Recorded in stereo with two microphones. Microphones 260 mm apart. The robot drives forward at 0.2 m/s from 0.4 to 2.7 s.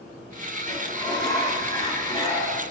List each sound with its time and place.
0.7 s a sliding door: 15° left (ahead or behind), 2 m; by 2.6 s 10° left (ahead or behind), 2.5 m